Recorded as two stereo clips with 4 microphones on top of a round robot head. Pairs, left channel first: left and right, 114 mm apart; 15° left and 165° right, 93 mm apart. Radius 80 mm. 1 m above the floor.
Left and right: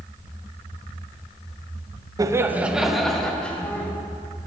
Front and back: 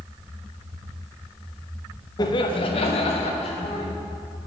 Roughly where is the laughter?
Ahead right.